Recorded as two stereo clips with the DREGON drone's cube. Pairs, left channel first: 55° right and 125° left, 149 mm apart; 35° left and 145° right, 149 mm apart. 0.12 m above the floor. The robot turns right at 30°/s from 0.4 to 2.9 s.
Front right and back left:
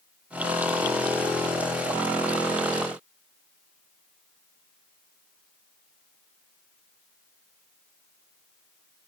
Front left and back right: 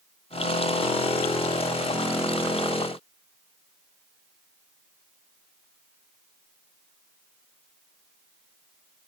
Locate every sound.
Only background noise.